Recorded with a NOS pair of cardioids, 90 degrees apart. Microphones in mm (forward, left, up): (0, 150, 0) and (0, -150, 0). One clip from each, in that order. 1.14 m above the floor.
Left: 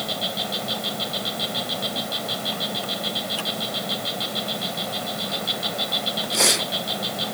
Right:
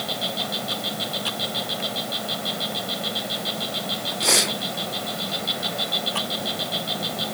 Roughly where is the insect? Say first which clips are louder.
Even; ahead.